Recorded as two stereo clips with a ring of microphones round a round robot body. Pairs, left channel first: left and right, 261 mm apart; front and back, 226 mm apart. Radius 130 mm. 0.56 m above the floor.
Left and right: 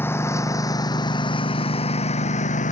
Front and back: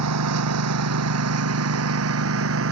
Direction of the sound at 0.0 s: 170° left.